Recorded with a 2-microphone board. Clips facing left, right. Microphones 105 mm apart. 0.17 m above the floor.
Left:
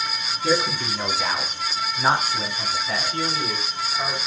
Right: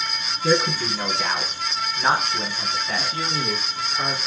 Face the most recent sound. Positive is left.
turn(degrees=-30)  # may be behind; listen again after turning